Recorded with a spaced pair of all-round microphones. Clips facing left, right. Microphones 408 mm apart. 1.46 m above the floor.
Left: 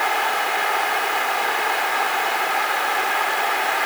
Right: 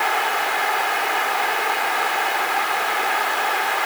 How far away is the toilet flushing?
I don't hear a toilet flushing.